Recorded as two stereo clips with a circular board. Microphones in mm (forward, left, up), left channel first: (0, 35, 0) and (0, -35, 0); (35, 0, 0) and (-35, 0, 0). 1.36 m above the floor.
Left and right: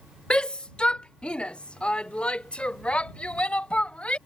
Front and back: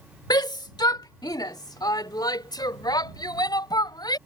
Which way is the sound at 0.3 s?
15° left.